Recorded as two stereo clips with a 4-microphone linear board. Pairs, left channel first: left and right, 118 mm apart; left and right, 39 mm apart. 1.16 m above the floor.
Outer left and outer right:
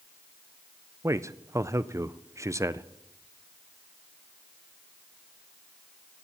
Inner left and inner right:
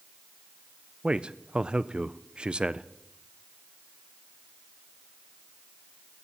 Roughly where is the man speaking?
Right.